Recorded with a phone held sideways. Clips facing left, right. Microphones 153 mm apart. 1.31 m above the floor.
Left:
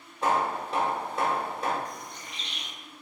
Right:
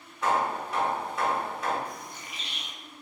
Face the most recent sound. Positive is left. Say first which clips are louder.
# even
turn(degrees=-5)  # may be behind; listen again after turning